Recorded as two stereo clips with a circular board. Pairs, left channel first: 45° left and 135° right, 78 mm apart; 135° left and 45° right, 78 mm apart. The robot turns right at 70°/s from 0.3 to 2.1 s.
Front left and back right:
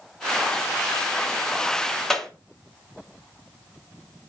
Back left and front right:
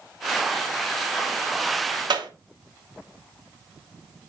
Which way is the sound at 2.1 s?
40° right.